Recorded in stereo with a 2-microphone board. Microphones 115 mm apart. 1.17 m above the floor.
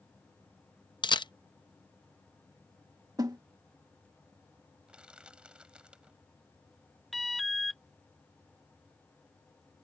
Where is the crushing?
10° right (ahead or behind).